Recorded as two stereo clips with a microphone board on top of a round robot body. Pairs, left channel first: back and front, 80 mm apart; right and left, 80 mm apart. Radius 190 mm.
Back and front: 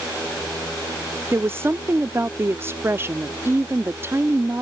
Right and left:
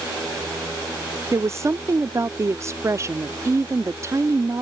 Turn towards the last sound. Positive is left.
turn(degrees=50)